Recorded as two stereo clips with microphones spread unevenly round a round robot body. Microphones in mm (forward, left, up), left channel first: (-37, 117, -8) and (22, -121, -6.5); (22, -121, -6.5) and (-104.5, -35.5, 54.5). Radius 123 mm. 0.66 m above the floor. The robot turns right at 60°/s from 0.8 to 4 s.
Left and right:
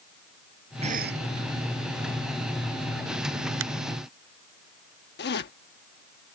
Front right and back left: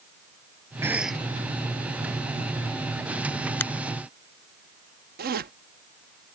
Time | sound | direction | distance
0.8 | a cough | 145° right | ?
3.6 | a finger snap | 110° right | ?
5.2 | a zipper | 120° left | ?